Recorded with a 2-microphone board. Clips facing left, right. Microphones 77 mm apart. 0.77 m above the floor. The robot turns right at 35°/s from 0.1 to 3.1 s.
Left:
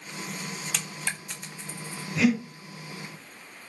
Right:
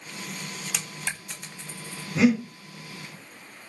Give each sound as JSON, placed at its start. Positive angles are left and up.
{"t": 0.7, "sound": "a dropped coin", "side_deg": -10, "distance_m": 0.7}
{"t": 2.1, "sound": "breathing", "side_deg": -35, "distance_m": 1.7}